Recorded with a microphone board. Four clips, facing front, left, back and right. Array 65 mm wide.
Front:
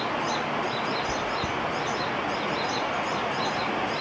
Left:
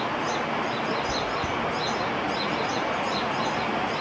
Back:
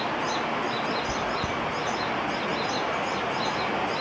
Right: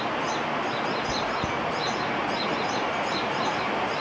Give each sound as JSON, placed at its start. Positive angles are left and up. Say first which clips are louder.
{"t": 1.1, "sound": "chewing", "louder": "even, even", "azimuth_deg": -90, "distance_m": 1.5}